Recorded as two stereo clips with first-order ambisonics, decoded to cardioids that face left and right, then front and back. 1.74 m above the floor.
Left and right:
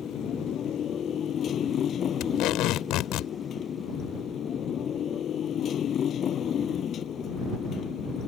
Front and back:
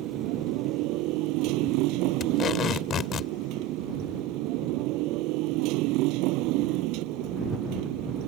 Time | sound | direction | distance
0.0 | a motorcycle | 150° left | ?
2.2 | tape being pulled | 55° left | ?